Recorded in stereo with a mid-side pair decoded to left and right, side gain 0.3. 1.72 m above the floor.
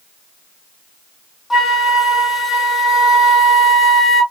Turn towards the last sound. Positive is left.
turn(degrees=65)